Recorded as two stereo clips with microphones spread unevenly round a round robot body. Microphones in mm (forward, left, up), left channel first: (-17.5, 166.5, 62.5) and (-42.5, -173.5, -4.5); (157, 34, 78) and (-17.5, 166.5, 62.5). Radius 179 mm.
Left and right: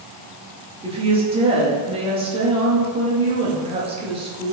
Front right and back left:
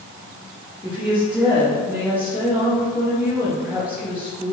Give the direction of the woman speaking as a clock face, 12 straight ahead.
5 o'clock.